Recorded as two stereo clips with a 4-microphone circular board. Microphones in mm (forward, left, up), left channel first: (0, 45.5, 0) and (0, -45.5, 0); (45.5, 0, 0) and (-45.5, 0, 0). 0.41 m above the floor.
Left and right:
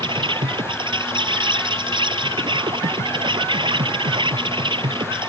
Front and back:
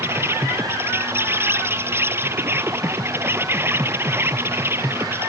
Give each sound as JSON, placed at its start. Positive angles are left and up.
{"t": 0.0, "sound": "an insect", "azimuth_deg": -115}